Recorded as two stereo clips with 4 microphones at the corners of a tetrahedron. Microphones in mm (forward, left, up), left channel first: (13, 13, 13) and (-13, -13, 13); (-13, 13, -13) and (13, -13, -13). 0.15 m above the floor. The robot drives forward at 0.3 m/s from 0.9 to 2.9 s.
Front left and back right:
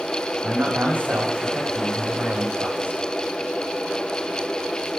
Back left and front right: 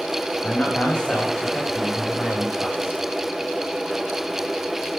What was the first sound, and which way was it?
A man speaking, 160° right.